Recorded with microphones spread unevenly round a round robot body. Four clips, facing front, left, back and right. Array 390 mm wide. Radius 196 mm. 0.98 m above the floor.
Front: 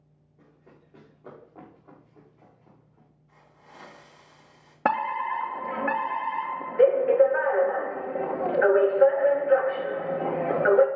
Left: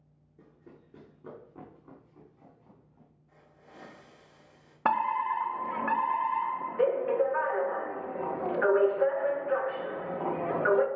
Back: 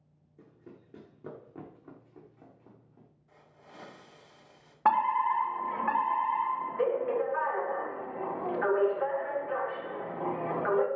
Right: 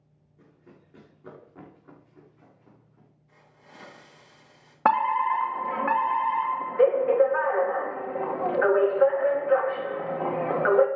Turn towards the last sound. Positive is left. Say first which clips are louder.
# right 5 dB, back 1 dB
turn(degrees=-35)